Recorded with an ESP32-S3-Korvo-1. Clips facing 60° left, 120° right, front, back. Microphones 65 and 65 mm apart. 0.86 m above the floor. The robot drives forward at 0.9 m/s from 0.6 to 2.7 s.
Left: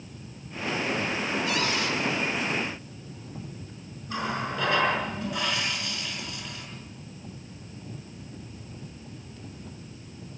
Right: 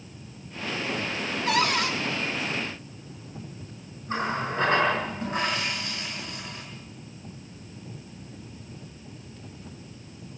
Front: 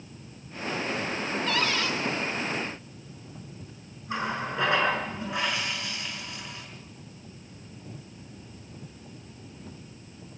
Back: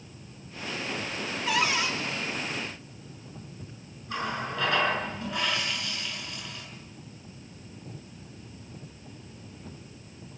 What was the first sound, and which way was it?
A cupboard door, 100° right.